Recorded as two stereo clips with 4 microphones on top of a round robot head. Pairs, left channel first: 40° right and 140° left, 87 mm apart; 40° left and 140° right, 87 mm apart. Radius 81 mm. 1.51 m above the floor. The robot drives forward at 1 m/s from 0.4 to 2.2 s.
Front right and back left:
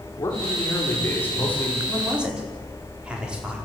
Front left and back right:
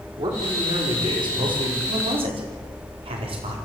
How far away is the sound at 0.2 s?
About 4.5 m.